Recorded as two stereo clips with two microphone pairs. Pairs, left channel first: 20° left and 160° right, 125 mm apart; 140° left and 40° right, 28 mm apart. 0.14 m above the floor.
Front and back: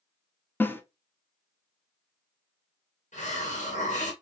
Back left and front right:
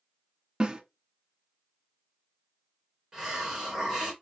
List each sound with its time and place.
0.6 s a snare drum: 30° right, 0.7 m
3.1 s a hiss: 25° left, 2 m